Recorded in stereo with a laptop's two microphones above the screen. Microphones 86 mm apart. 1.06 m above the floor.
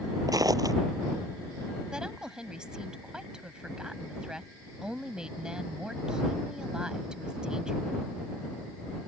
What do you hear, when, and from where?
0.3 s footsteps: 50° right (ahead or behind)
1.9 s a woman speaking: 10° right (ahead or behind)